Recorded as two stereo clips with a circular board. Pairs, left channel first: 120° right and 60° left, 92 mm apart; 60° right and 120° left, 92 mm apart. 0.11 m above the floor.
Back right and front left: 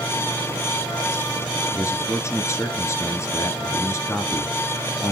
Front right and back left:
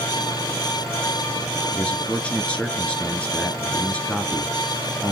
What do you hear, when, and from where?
1.7 s a man speaking: 125° right, 1.2 m